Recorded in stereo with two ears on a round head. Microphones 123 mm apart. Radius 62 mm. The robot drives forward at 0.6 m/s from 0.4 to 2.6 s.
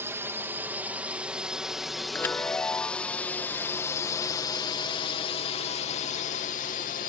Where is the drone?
20° right (ahead or behind); by 7.1 s 65° left (ahead or behind).